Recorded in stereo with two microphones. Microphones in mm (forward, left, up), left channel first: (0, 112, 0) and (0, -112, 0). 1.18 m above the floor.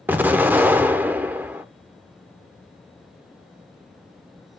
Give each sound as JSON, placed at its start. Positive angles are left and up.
{"t": 0.1, "sound": "an explosion", "side_deg": -10, "distance_m": 0.6}